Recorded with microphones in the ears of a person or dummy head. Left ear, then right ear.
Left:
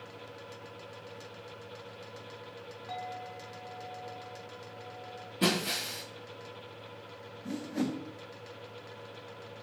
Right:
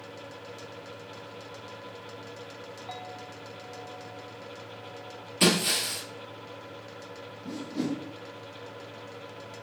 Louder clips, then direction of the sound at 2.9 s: Left 3 dB; 5° right (ahead or behind).